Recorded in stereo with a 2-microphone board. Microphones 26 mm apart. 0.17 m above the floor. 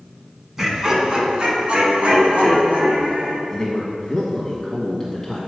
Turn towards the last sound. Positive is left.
turn(degrees=15)  # may be behind; listen again after turning